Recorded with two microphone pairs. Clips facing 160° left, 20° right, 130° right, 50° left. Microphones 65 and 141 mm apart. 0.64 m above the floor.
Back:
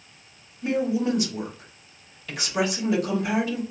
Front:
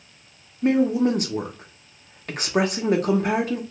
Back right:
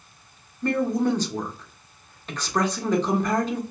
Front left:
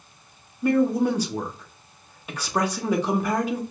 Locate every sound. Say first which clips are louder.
0.6 s a woman speaking: front 5 dB, front left 2 dB; 25° right, 0.8 m